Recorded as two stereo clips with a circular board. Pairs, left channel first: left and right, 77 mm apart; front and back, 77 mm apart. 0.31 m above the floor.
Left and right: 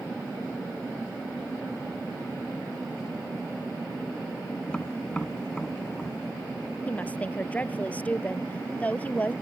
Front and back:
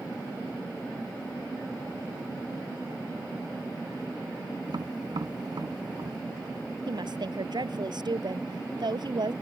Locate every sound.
4.7 s tapping: 170° left
6.9 s a woman speaking: 160° left